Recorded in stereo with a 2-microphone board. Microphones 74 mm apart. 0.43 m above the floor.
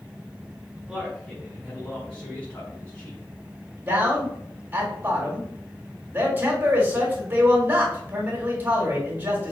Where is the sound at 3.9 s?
25° right (ahead or behind), 1.4 m.